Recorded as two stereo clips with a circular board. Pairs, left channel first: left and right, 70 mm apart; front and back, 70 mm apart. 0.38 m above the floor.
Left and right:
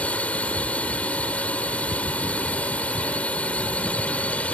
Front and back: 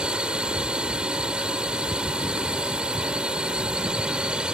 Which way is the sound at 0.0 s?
125° left.